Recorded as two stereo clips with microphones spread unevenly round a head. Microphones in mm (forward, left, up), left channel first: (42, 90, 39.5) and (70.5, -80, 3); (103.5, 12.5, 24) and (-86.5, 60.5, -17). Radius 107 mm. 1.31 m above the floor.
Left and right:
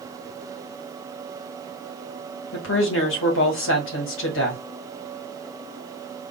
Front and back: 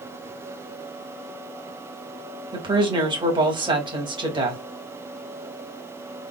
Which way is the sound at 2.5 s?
100° left.